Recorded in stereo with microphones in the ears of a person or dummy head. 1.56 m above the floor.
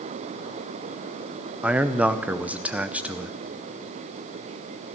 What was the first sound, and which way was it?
A man speaking, 10° right (ahead or behind).